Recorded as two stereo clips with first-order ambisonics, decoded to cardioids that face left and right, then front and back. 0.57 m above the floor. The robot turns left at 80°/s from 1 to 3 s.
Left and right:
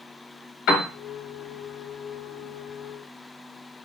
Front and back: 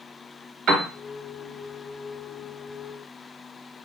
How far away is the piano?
About 0.8 m.